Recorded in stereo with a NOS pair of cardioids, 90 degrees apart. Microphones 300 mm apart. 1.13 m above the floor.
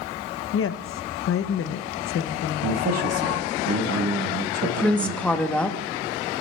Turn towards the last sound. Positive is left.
turn(degrees=5)